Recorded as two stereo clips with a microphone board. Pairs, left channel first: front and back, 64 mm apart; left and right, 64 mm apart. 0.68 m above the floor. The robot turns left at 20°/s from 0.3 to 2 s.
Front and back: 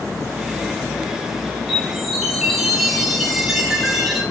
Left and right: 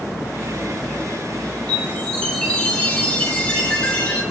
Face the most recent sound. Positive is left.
turn(degrees=100)